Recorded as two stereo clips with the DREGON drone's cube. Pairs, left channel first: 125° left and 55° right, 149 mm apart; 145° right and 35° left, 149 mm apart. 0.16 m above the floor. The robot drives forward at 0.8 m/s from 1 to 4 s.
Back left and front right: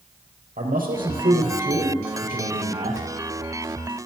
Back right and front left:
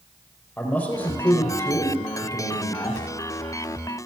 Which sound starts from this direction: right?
A man speaking, at 0.6 s.